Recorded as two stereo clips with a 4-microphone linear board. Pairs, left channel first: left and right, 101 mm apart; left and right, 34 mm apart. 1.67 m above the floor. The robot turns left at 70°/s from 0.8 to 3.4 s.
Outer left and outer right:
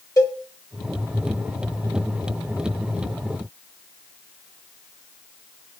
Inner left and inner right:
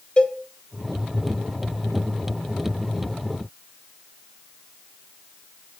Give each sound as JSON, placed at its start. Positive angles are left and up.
{"t": 0.2, "sound": "a cowbell", "side_deg": 35, "distance_m": 1.2}